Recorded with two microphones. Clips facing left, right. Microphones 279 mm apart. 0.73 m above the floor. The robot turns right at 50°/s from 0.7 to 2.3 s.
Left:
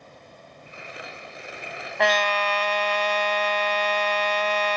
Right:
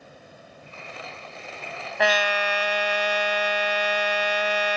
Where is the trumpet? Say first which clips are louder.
Even; centre (ahead or behind); by 4.8 s 10° right (ahead or behind).